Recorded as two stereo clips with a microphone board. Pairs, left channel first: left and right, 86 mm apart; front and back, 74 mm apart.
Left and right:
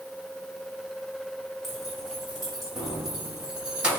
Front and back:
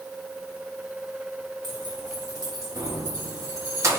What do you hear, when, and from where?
1.6 s keys jangling: straight behind, 2 m; by 4.0 s 160° right, 0.9 m